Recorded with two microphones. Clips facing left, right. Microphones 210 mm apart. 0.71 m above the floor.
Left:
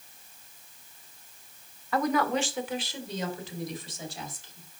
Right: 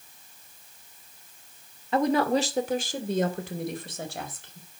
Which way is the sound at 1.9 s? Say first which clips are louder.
Right 4 dB; 25° right (ahead or behind).